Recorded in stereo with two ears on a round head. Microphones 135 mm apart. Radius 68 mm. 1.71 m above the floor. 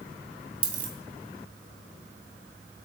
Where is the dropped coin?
35° right (ahead or behind), 5 m.